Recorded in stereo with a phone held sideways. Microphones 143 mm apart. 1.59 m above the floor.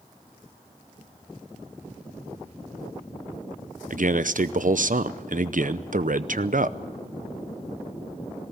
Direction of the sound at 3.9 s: 65° right (ahead or behind).